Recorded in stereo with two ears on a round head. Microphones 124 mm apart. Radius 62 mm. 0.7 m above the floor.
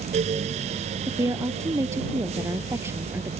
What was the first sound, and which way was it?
A woman speaking, 25° right (ahead or behind).